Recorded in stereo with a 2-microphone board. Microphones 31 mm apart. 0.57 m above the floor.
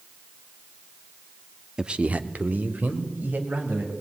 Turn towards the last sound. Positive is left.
turn(degrees=-80)